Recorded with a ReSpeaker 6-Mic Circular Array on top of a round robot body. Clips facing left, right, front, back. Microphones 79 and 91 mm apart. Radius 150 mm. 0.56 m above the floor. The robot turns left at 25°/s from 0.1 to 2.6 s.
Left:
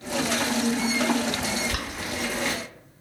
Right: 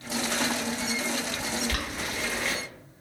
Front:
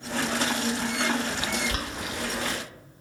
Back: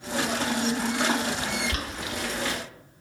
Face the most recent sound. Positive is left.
turn(degrees=0)